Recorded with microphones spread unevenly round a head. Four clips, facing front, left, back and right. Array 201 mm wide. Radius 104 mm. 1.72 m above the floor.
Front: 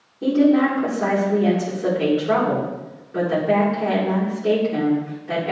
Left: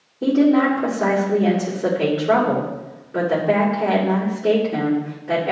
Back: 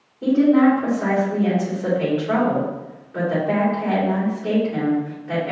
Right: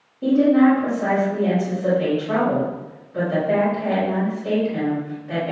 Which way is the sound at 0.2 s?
70° left.